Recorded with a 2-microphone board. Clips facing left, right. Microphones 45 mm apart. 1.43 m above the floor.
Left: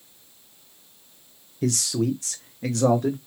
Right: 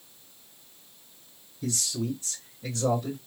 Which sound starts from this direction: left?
A man speaking, at 1.6 s.